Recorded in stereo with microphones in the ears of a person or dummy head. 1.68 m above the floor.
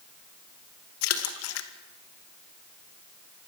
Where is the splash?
80° left, 1.9 m.